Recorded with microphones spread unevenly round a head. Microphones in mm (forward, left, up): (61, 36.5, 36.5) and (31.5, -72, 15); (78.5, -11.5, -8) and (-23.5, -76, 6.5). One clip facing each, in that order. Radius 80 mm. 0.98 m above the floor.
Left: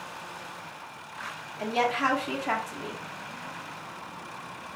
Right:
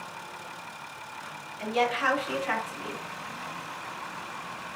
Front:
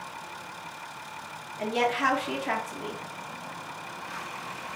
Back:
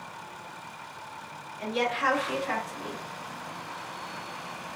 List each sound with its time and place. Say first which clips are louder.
1.6 s a woman speaking: even, front 2 dB; 15° left, 1.0 m